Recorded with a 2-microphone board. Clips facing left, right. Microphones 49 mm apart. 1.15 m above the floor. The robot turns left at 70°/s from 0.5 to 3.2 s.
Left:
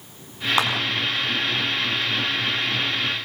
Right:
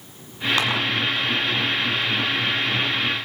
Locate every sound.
0.6 s a clap: 25° left (ahead or behind), 7.5 m; by 0.7 s 15° left (ahead or behind), 7.5 m